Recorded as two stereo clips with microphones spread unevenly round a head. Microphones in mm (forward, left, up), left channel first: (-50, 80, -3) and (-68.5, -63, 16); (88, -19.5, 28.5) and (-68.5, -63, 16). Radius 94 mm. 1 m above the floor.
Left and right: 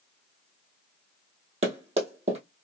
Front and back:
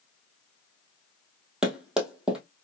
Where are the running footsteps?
75° right, 1.5 m.